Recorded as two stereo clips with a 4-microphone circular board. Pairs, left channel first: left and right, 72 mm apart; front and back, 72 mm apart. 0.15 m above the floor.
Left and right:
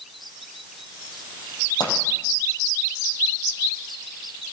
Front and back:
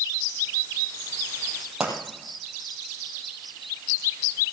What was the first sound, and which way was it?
A pop, 100° left.